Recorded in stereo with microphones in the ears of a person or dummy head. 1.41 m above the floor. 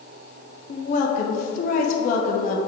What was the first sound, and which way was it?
A woman speaking, 55° left (ahead or behind).